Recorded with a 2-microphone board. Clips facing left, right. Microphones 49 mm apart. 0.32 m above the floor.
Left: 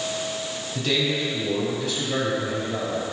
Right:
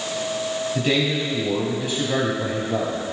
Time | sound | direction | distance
0.8 | a man speaking | 25° right (ahead or behind) | 2.5 m